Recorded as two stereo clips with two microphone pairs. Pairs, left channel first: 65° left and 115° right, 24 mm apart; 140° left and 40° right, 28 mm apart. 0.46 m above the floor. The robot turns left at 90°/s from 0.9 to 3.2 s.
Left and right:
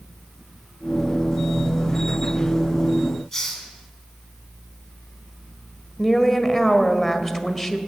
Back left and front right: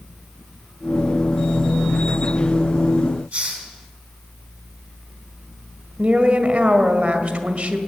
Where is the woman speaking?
10° right, 1.6 m.